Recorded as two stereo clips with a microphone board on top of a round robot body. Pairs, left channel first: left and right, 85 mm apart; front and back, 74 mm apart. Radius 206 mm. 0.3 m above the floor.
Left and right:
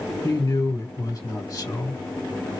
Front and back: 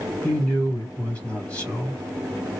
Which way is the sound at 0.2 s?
65° left.